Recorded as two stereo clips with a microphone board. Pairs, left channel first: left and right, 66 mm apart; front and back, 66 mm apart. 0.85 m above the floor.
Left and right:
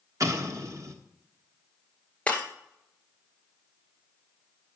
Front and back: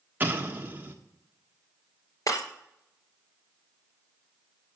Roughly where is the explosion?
Behind right.